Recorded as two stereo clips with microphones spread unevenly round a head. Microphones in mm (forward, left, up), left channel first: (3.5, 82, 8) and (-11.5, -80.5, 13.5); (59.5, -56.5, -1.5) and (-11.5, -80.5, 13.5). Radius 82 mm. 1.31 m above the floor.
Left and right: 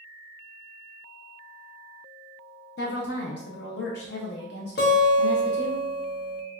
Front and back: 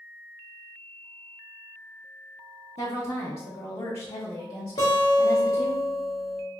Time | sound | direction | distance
2.8 | a woman speaking | 60° left | 0.5 m
4.8 | a guitar | 70° left | 1.0 m